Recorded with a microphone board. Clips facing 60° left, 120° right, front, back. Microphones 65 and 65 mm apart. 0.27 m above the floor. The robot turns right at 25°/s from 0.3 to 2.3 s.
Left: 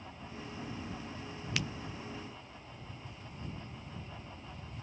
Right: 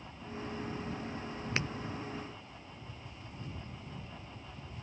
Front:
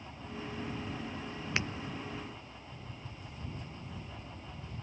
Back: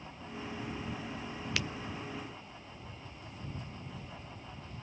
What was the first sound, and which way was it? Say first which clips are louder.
Breaking glass: right 2 dB, front 2 dB; 60° right.